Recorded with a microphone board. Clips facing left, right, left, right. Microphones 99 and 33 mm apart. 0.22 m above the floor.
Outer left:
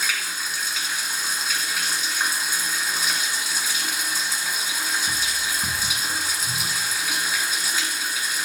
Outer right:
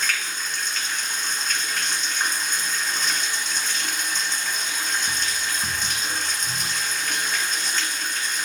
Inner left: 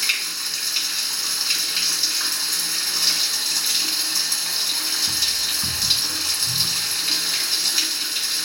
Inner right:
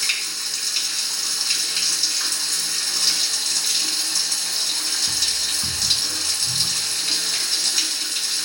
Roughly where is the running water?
Centre.